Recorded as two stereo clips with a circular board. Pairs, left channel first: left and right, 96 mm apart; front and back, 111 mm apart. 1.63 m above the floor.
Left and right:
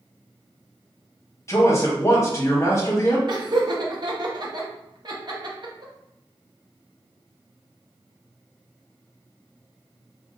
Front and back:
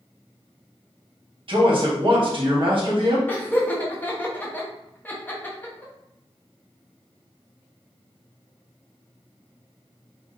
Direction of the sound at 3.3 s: 70° right.